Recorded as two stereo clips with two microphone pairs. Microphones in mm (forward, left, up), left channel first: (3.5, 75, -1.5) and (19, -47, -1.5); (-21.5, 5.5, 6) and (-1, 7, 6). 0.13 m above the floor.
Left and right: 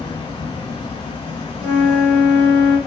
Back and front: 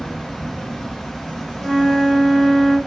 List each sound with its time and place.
0.0 s an insect: 90° left, 2.0 m
1.6 s a flute: 160° right, 1.2 m